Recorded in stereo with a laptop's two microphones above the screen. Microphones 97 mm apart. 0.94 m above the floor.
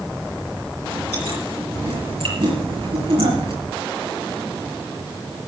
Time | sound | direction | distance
0.8 | chewing | 70° right (ahead or behind) | 5 m